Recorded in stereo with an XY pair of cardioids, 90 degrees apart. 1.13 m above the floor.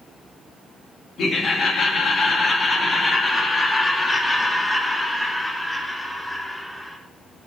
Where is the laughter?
65° left, 2.5 m; by 7.0 s 10° left, 3.5 m.